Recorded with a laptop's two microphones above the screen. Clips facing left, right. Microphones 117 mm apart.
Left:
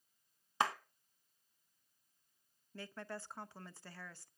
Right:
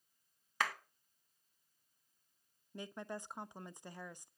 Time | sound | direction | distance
0.6 | a clap | 25° left (ahead or behind) | 1.0 m
2.7 | a woman speaking | 20° right (ahead or behind) | 0.7 m